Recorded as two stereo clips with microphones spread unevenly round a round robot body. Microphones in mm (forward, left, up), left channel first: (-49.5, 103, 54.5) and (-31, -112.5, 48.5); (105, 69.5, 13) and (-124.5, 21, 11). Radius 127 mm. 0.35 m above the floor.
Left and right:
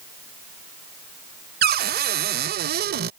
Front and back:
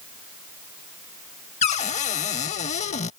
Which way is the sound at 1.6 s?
50° right.